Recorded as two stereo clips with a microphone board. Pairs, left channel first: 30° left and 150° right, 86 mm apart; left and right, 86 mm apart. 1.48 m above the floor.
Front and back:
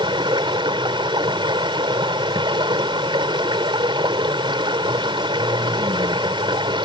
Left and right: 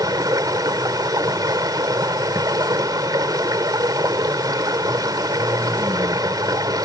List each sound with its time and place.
0.0 s running water: 130° right